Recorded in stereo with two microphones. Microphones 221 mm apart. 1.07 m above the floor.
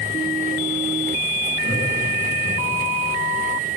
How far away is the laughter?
About 8.5 m.